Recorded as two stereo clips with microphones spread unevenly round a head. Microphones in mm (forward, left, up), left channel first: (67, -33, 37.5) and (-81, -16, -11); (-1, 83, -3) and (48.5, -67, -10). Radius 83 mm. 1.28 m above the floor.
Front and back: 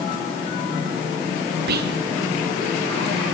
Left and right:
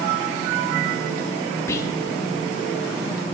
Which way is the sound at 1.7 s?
175° right.